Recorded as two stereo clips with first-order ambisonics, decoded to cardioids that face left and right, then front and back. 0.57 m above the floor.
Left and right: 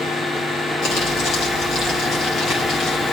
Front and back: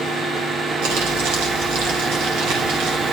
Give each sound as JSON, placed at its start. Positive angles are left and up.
{"t": 0.8, "sound": "crumpling", "azimuth_deg": 160, "distance_m": 4.5}